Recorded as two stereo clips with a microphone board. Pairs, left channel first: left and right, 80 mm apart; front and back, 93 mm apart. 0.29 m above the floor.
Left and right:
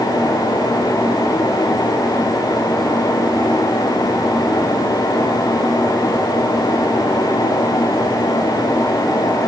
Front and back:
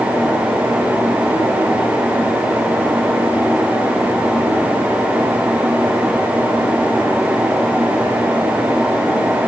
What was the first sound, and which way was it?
Only background noise.